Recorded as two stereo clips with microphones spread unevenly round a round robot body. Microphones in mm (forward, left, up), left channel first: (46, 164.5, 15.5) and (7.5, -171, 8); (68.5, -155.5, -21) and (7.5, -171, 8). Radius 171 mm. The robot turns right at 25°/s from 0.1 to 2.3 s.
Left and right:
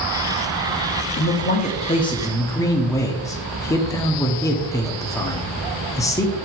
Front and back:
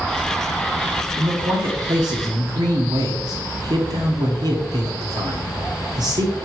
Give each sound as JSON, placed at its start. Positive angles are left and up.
{"t": 1.2, "sound": "a man speaking", "azimuth_deg": 135, "distance_m": 0.9}